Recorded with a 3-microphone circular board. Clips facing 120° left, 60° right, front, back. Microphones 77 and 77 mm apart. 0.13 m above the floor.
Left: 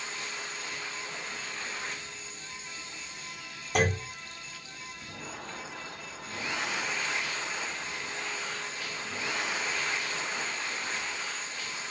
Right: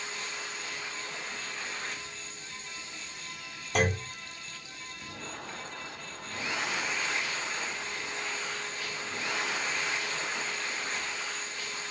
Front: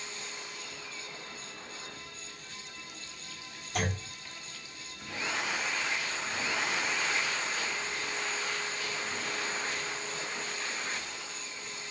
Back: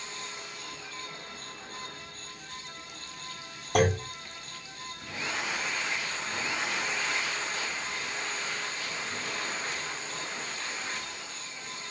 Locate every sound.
3.8 s a clunk: 155° right, 1.9 m